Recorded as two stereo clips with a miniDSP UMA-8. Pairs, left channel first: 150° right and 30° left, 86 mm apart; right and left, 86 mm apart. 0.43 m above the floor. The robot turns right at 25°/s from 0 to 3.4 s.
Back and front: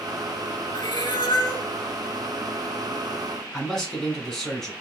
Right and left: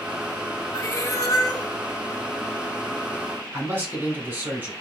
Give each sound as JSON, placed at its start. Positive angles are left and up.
{"t": 0.7, "sound": "a cat meowing", "azimuth_deg": -140, "distance_m": 0.5}
{"t": 3.5, "sound": "a man speaking", "azimuth_deg": 125, "distance_m": 1.4}